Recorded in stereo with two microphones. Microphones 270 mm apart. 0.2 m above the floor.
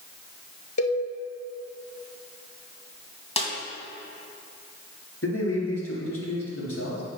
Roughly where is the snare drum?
Left.